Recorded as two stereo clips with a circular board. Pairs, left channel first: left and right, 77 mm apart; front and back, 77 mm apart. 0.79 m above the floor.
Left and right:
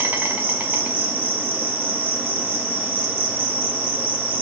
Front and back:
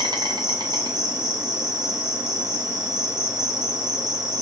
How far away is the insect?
About 0.7 m.